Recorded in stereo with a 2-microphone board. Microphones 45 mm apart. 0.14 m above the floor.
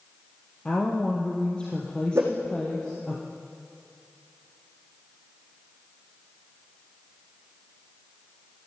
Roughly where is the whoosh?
Right.